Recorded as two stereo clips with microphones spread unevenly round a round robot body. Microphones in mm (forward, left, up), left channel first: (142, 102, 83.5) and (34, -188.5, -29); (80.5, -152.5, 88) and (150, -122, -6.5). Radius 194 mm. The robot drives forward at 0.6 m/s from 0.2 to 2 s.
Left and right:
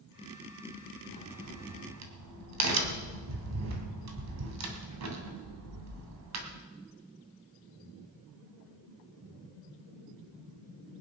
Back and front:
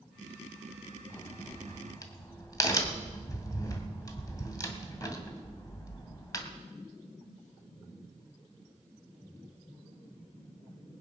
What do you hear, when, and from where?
1.1 s a crack: 75° right, 2.5 m; by 6.5 s 90° right, 2.5 m